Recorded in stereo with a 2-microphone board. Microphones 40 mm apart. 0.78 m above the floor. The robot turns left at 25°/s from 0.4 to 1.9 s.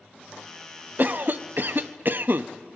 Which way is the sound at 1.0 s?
45° right (ahead or behind).